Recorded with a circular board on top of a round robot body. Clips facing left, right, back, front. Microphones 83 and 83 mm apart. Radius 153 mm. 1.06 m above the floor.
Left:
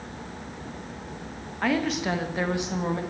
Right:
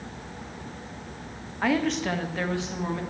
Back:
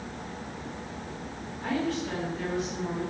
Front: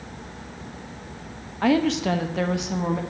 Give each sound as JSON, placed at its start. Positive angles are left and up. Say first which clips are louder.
{"t": 1.6, "sound": "a woman speaking", "louder": "right 1 dB, front 9 dB", "azimuth_deg": -5, "distance_m": 1.1}